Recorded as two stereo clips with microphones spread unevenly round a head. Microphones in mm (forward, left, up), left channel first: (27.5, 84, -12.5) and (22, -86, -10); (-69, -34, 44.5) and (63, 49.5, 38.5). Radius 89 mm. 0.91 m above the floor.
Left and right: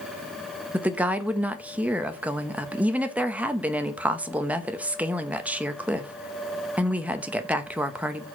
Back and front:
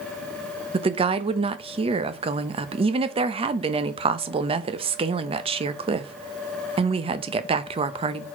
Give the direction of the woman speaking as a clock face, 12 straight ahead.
12 o'clock.